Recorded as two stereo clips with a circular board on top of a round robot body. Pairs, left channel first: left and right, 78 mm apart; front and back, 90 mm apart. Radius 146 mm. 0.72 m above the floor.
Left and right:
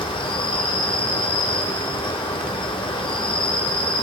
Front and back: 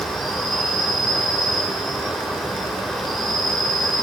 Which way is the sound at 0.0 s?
85° left.